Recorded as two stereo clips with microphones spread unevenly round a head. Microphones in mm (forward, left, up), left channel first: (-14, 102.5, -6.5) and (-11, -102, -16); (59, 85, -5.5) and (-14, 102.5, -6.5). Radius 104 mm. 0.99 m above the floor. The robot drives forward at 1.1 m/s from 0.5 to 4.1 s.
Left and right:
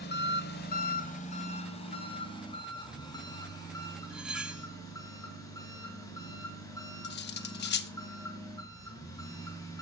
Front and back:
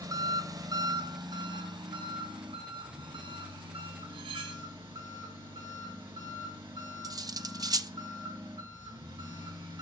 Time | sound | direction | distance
0.0 | an engine running | 130° left | 1.8 m
4.1 | cutlery clinking | 175° right | 1.2 m
7.0 | cutlery clinking | 130° left | 1.0 m